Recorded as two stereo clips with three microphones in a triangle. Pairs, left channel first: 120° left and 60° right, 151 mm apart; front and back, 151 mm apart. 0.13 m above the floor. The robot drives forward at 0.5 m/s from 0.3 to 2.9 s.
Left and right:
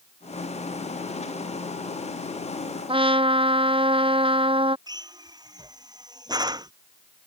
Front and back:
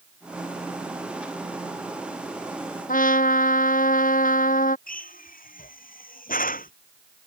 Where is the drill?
Straight ahead.